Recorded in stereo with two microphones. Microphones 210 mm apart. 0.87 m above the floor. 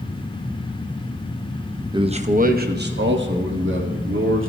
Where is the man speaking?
20° right (ahead or behind), 0.6 m; by 4.5 s 70° right (ahead or behind), 2 m.